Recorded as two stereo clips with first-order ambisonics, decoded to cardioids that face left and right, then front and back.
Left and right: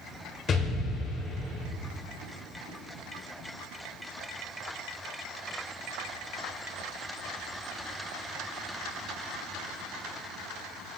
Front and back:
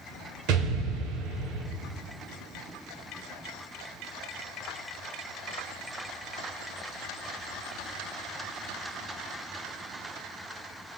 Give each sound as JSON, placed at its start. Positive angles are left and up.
{"t": 0.5, "sound": "an explosion", "azimuth_deg": 155, "distance_m": 2.0}